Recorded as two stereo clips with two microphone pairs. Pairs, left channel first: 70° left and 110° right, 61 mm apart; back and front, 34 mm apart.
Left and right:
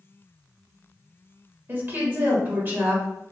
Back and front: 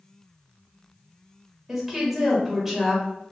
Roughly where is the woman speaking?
Right.